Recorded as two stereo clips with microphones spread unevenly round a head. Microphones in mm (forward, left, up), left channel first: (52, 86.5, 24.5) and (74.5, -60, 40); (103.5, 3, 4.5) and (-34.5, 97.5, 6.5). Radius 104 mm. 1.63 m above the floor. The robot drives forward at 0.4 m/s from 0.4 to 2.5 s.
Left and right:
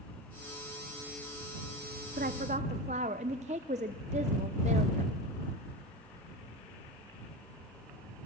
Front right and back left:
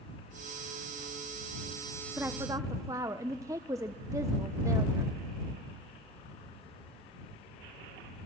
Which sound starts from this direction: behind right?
A woman speaking, at 2.2 s.